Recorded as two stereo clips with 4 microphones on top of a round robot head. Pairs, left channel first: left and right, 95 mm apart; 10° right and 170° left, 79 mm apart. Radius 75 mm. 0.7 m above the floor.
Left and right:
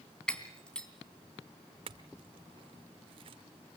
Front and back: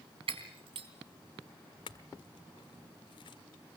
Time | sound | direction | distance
0.3 | breaking glass | 170° left | 3 m
1.9 | a clink | 50° right | 1.0 m